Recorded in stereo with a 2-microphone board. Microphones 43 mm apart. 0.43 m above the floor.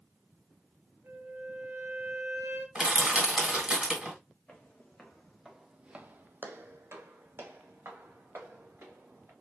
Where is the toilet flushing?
No toilet flushing in this recording.